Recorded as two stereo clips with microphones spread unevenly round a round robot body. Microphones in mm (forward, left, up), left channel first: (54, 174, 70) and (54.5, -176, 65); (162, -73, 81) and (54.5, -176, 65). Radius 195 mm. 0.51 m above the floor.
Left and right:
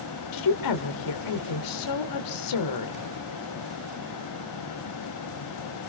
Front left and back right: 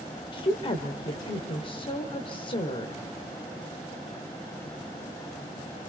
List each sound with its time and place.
0.3 s a woman speaking: 105° left, 2 m